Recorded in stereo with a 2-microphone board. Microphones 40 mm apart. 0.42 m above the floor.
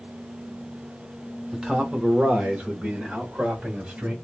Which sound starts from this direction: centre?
A man speaking, at 1.5 s.